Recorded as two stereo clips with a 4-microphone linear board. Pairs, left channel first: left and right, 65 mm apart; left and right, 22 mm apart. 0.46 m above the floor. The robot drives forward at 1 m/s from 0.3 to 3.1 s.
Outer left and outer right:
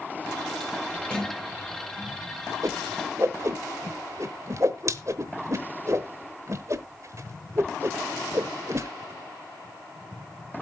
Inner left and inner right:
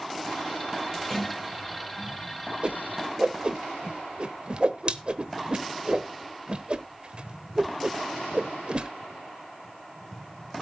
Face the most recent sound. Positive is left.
turn(degrees=-50)  # may be behind; listen again after turning